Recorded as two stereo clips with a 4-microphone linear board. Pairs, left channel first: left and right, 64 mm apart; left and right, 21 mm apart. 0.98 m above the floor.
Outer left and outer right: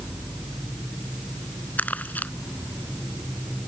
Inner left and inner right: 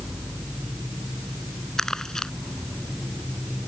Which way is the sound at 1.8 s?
25° left (ahead or behind).